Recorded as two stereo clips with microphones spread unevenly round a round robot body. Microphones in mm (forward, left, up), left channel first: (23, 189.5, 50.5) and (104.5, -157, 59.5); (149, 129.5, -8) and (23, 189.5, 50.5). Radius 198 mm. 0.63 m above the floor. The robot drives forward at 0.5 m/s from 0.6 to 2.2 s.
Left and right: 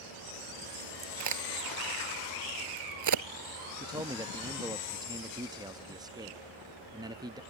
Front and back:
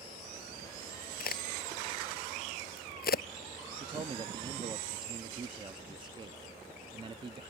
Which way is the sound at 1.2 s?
35° right.